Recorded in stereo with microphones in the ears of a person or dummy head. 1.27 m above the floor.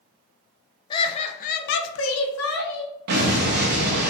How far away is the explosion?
About 0.7 m.